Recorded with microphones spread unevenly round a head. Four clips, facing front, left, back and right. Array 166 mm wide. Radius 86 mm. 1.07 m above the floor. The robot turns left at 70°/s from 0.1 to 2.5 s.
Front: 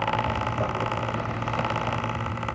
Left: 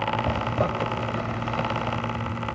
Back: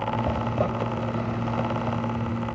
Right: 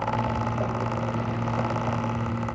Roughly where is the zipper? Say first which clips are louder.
Left 2 dB, back 2 dB; left.